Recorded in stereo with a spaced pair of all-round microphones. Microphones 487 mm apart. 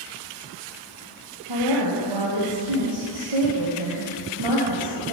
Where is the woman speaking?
65° right (ahead or behind), 0.9 m.